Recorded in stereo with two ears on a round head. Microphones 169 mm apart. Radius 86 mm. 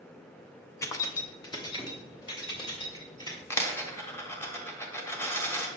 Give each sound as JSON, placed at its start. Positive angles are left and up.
{"t": 0.8, "sound": "keys jangling", "side_deg": 15, "distance_m": 0.6}
{"t": 3.5, "sound": "a dropped coin", "side_deg": 15, "distance_m": 1.2}